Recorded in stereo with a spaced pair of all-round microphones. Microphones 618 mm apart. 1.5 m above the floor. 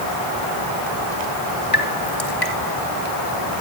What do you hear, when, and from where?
1.7 s dripping: 60° left (ahead or behind), 3 m